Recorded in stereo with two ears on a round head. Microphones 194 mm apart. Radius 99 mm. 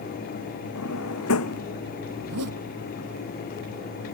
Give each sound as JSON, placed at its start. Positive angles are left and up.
{"t": 0.8, "sound": "a drawer", "side_deg": 70}
{"t": 2.2, "sound": "a zipper", "side_deg": -75}